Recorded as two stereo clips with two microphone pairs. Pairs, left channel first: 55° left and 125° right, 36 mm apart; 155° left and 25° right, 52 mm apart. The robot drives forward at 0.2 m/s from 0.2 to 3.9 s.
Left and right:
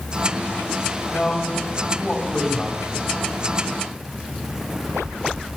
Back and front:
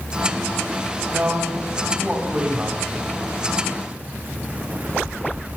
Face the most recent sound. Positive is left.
turn(degrees=-5)